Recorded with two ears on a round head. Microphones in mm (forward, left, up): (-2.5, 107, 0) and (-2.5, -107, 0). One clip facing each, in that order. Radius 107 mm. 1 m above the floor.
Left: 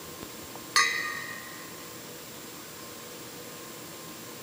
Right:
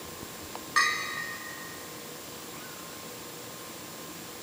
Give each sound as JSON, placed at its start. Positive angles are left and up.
{"t": 0.8, "sound": "a bell", "side_deg": 60, "distance_m": 1.8}